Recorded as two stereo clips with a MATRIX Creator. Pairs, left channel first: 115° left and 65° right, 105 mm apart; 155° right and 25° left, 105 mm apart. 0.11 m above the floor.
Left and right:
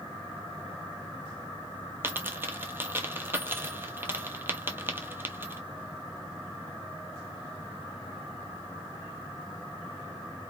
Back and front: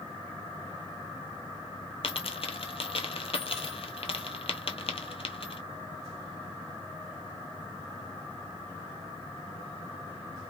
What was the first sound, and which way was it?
A dropped coin, 135° right.